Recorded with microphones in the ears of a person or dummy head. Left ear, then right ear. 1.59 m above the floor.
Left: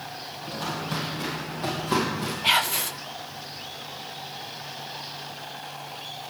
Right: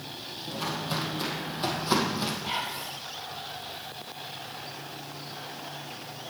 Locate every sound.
0.5 s footsteps: 5° right (ahead or behind), 2 m; by 2.3 s 45° right (ahead or behind), 3 m
2.4 s whispering: 75° left (ahead or behind), 0.5 m